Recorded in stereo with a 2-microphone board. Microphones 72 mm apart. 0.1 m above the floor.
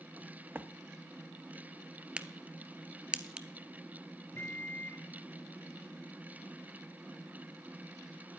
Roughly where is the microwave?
Left.